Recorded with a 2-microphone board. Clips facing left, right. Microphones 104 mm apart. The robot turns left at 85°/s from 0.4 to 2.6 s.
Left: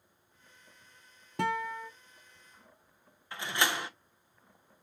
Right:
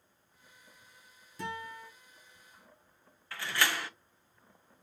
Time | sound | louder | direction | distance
1.4 | a guitar | left 8 dB | 110° left | 0.7 m
3.3 | a door slam | left 1 dB | 20° left (ahead or behind) | 0.5 m